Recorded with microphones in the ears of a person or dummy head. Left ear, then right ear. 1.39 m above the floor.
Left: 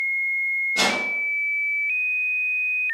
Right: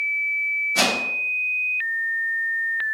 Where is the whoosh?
60° right (ahead or behind), 0.9 m.